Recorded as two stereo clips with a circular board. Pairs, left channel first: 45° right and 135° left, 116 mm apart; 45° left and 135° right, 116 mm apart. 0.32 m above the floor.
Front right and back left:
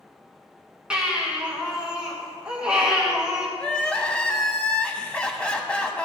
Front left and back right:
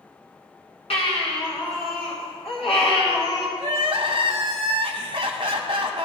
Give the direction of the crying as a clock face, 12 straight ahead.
4 o'clock.